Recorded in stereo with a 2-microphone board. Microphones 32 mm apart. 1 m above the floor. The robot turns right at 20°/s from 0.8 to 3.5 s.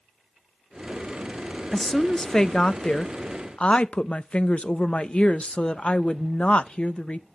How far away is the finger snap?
No finger snap in this recording.